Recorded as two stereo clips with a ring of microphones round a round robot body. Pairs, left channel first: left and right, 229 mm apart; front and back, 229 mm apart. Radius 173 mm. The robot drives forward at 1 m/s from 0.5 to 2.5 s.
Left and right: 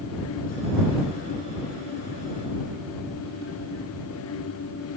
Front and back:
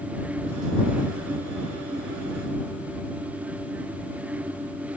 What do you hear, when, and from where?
Only background noise.